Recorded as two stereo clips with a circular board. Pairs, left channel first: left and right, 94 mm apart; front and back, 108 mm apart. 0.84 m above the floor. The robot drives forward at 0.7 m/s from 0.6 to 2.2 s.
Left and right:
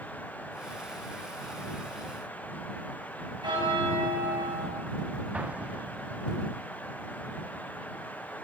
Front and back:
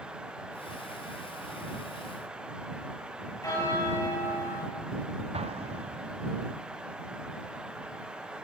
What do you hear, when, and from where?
3.4 s a bell: 55° right, 5.5 m
5.3 s an explosion: 165° right, 0.5 m